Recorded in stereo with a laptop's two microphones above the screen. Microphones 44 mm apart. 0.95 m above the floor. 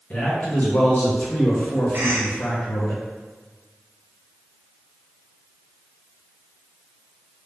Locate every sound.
0.1 s a man speaking: 40° left (ahead or behind), 1.2 m
1.9 s a cough: 55° right (ahead or behind), 0.8 m